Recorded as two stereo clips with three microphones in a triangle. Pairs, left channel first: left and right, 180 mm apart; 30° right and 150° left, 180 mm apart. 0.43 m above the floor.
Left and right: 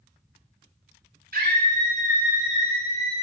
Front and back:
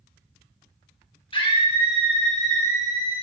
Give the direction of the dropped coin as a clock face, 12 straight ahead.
I don't hear a dropped coin.